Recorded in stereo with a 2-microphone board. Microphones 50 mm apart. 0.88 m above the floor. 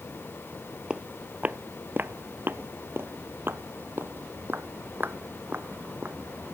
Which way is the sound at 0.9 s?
20° right (ahead or behind).